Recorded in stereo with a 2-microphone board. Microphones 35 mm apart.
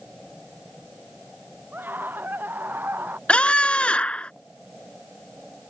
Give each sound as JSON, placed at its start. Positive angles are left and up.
{"t": 1.7, "sound": "a scream", "side_deg": -65}
{"t": 3.3, "sound": "a scream", "side_deg": 35}